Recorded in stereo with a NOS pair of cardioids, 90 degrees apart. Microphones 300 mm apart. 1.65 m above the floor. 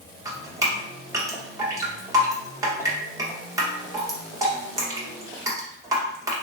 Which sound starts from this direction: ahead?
Dripping, at 0.2 s.